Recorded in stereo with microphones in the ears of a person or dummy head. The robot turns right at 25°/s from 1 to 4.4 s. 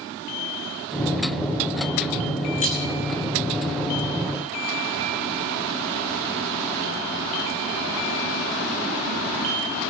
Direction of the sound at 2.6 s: 45° left (ahead or behind).